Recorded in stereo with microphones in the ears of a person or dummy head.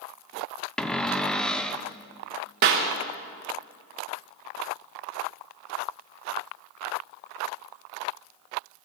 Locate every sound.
0.8 s a cupboard door: centre (ahead or behind), 0.6 m
2.6 s a clap: 45° right (ahead or behind), 1.3 m